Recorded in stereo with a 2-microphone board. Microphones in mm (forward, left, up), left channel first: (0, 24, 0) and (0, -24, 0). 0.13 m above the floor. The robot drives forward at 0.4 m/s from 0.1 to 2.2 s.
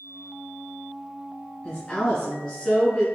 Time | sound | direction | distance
1.6 | a woman speaking | 20° left (ahead or behind) | 1.1 m